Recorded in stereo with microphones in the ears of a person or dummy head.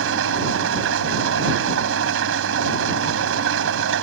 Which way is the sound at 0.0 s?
75° right (ahead or behind).